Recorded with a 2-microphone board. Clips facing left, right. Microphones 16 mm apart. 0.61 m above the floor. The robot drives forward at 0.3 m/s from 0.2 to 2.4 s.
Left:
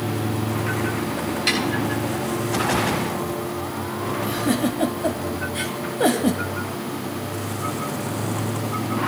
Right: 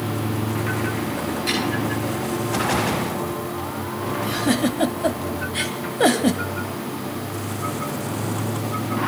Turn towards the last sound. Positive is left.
turn(degrees=-25)  # may be behind; listen again after turning